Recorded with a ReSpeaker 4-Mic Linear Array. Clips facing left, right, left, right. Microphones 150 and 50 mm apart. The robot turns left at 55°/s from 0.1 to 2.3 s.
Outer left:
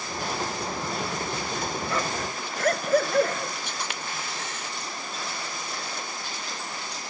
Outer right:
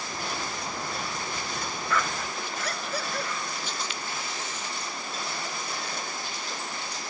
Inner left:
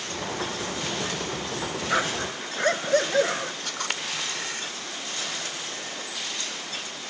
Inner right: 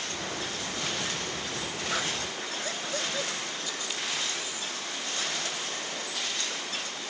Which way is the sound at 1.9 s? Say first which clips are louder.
Outer left 1 dB, inner left 7 dB; 30° left (ahead or behind).